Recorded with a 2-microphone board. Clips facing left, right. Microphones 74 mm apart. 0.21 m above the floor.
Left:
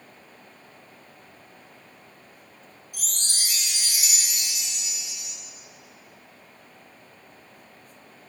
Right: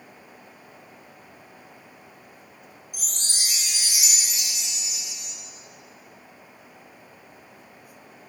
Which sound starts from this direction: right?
A chime, at 2.9 s.